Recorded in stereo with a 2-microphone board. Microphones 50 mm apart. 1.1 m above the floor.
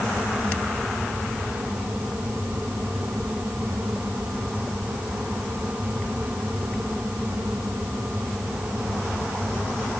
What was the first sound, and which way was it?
Only background noise.